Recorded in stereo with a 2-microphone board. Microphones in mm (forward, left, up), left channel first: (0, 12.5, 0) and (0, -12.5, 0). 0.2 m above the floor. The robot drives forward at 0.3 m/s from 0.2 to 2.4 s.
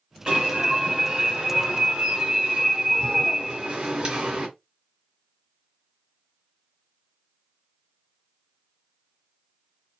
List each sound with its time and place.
0.3 s an alarm: 30° right (ahead or behind), 3 m; by 4.5 s 35° right (ahead or behind), 2.5 m